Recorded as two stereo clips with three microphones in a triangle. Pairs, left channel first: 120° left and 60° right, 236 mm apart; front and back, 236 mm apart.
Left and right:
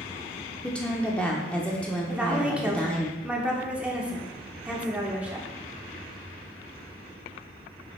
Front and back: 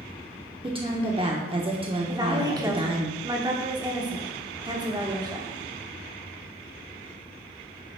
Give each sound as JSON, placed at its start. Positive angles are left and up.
{"t": 0.6, "sound": "a woman speaking", "azimuth_deg": -165, "distance_m": 0.8}
{"t": 2.1, "sound": "a woman speaking", "azimuth_deg": -135, "distance_m": 0.9}